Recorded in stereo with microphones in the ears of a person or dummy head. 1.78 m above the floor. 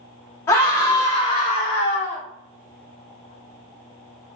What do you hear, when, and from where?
0.5 s a scream: 20° left (ahead or behind), 1.5 m; by 2.2 s 60° left (ahead or behind), 1.1 m